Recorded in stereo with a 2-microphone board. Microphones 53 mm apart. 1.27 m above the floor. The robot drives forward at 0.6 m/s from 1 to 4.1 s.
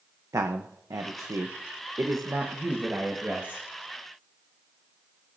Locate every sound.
0.3 s a man speaking: 85° right, 0.8 m; by 3.6 s 30° right (ahead or behind), 1.7 m